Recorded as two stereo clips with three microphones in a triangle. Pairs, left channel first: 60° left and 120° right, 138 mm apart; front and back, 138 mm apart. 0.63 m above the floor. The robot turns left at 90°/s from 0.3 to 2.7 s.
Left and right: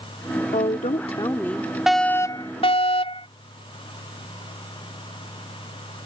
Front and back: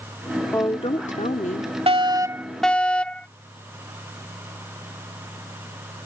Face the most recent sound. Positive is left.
turn(degrees=80)